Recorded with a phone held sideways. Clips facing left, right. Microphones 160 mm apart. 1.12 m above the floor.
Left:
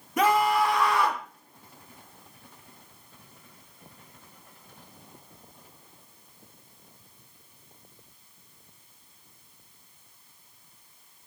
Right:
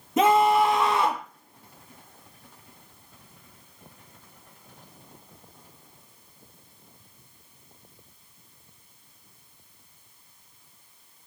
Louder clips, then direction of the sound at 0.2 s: Right 4 dB; 20° right (ahead or behind).